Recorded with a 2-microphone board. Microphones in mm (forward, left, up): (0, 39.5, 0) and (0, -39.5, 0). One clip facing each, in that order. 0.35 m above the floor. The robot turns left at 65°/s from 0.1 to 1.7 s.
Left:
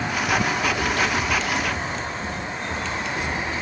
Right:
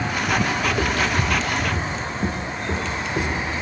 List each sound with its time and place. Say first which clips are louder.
0.7 s footsteps: right 1 dB; 25° right (ahead or behind), 0.8 m; by 3.5 s 30° right (ahead or behind), 2.0 m